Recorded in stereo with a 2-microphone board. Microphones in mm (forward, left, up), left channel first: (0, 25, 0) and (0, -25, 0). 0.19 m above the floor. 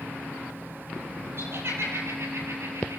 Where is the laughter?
50° right (ahead or behind), 5.5 m; by 3.0 s 55° right (ahead or behind), 4.5 m.